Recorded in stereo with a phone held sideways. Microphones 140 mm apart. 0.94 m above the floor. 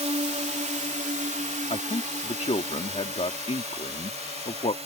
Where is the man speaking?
50° left (ahead or behind).